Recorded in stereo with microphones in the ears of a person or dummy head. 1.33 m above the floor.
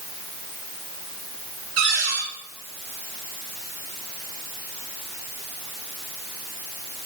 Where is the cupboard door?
75° right (ahead or behind), 5 m.